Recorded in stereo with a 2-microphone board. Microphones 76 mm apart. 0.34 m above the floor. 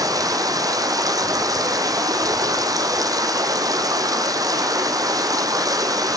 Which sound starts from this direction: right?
Running water, at 0.0 s.